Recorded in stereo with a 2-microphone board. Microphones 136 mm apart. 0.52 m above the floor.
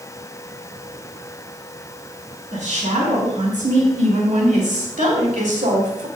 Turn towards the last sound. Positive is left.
turn(degrees=-70)  # may be behind; listen again after turning